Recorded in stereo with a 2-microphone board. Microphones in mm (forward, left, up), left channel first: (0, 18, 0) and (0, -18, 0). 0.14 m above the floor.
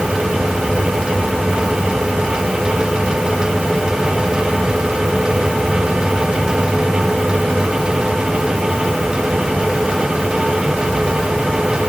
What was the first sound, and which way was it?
Only background noise.